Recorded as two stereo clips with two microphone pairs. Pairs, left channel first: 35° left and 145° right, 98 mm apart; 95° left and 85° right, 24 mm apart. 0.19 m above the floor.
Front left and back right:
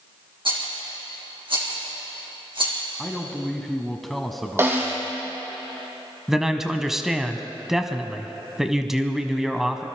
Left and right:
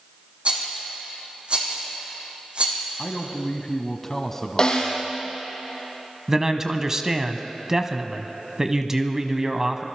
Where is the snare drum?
150° left, 3.5 m.